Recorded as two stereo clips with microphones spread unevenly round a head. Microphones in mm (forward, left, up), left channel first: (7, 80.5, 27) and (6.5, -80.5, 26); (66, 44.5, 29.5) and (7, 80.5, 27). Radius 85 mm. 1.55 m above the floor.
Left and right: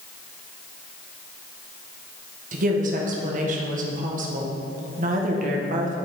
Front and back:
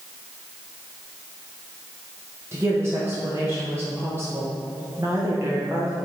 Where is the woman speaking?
140° right, 1.1 m.